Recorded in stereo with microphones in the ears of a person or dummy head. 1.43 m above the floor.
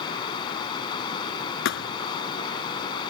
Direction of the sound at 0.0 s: 25° left (ahead or behind).